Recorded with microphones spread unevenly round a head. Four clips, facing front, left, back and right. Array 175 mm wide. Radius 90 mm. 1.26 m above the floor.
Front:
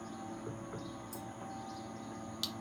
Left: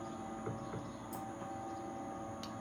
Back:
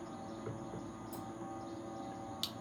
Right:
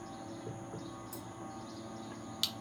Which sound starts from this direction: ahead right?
Keys jangling, at 1.1 s.